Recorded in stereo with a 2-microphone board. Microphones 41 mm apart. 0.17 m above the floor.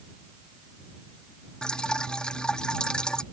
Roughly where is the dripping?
Left.